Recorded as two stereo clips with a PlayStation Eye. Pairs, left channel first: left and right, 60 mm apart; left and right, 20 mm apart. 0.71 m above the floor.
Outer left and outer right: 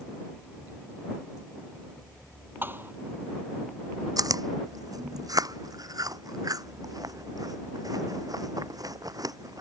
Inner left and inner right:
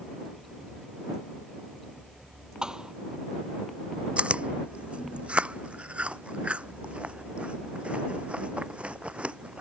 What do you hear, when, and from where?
2.6 s a thud: 35° right (ahead or behind)
4.2 s chewing: 85° right